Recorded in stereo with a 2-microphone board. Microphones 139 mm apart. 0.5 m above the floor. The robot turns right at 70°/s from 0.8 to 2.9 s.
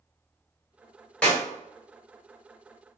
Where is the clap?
5° left (ahead or behind), 1.5 m; by 1.4 s 15° left (ahead or behind), 1.5 m.